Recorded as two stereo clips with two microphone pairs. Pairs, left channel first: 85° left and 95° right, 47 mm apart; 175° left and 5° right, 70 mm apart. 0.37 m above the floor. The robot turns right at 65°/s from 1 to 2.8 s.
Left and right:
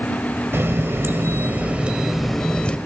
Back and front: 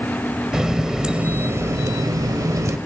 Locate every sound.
0.5 s a running tap: 85° right, 1.0 m; by 2.8 s 30° left, 1.0 m